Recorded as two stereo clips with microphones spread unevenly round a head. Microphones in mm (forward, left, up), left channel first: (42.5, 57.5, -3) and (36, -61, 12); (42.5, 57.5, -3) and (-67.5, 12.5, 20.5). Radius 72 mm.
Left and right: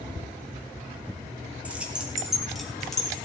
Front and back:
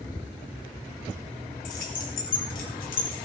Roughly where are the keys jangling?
Ahead.